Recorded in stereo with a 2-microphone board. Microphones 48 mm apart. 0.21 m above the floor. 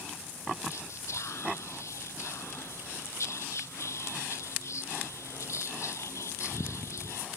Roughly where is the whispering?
Left.